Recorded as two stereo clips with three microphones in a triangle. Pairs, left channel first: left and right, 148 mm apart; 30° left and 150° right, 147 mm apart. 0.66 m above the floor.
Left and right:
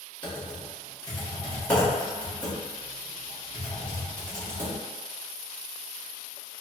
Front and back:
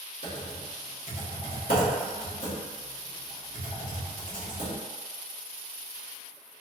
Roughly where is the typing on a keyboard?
Ahead.